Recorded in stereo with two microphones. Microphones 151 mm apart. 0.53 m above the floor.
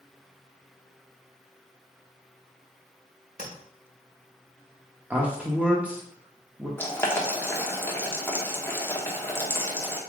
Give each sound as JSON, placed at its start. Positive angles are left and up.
{"t": 3.4, "sound": "tapping", "side_deg": -65, "distance_m": 1.7}
{"t": 5.1, "sound": "a man speaking", "side_deg": -10, "distance_m": 0.8}
{"t": 6.8, "sound": "boiling", "side_deg": 15, "distance_m": 1.0}